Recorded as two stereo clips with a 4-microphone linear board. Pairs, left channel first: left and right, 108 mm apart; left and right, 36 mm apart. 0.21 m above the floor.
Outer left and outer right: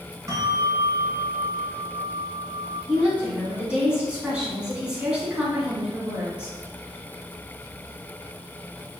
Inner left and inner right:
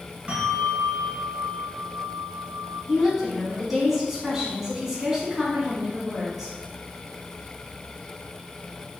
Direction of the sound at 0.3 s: 35° right (ahead or behind).